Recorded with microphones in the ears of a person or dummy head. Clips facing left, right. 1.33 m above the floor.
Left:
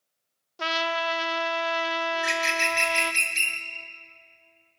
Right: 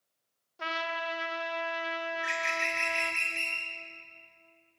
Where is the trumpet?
60° left (ahead or behind), 0.9 m.